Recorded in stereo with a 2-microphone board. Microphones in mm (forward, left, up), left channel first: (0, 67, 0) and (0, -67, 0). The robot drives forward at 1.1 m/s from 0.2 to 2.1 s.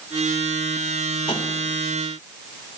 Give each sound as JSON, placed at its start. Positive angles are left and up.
{"t": 1.3, "sound": "tapping", "side_deg": 35, "distance_m": 4.0}